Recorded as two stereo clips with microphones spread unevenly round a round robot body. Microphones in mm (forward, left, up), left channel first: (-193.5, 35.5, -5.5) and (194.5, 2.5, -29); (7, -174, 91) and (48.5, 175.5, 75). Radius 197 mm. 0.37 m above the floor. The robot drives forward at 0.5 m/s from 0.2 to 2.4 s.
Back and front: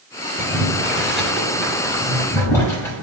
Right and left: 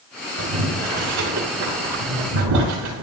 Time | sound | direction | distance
0.4 | boiling | 80° left | 5 m